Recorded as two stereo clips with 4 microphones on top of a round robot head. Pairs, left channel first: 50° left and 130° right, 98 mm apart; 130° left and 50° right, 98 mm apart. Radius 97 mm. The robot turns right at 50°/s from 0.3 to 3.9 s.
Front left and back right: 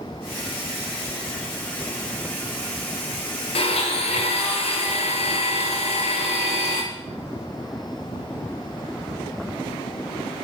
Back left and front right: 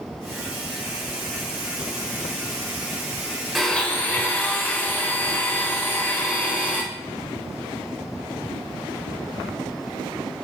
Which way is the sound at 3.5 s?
40° left.